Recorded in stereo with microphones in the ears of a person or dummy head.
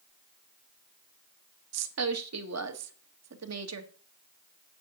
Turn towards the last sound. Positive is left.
turn(degrees=-70)  # may be behind; listen again after turning